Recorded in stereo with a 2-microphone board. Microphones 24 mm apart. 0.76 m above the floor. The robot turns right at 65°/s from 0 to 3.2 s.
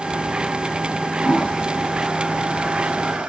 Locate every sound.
1.2 s a toilet flushing: 35° left (ahead or behind), 3 m; by 3.3 s 85° right, 3 m